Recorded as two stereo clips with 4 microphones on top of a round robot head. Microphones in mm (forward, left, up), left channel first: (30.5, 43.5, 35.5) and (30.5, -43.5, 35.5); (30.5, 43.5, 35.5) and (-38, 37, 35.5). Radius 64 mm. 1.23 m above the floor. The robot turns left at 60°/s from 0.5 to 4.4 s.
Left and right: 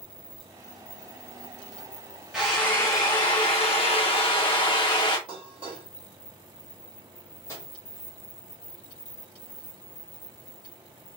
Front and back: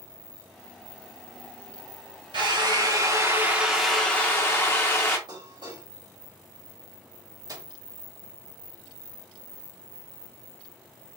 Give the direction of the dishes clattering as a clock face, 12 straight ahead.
4 o'clock.